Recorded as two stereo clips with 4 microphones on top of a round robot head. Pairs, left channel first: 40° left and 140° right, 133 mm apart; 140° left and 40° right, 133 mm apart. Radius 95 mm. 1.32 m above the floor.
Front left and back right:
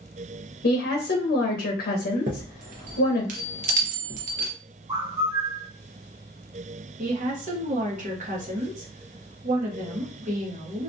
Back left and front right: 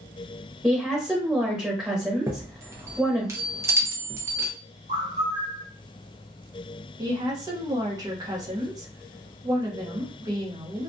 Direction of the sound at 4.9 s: 75° right.